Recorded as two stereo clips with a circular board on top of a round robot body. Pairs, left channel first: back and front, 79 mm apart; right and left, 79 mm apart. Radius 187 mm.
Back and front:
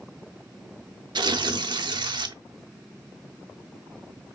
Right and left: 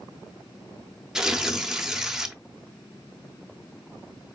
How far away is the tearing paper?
About 1.0 m.